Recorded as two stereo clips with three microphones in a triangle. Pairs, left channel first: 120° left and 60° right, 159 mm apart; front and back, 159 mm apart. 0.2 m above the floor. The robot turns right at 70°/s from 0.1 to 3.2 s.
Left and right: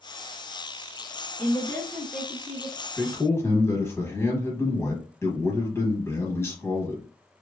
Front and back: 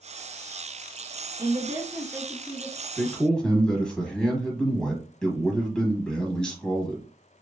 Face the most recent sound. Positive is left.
turn(degrees=80)